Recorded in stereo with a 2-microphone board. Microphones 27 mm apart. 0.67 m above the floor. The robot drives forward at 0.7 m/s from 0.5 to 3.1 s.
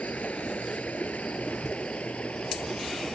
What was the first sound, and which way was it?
Running water, 75° left (ahead or behind).